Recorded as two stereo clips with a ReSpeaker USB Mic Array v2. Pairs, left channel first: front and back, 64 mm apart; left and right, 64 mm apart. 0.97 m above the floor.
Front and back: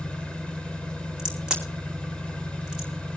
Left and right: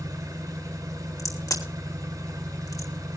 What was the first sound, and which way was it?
An engine running, 70° right.